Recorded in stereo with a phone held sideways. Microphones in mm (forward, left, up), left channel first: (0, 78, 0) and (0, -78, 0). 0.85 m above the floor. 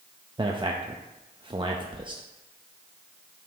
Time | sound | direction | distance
0.4 | a man speaking | 30° right (ahead or behind) | 0.5 m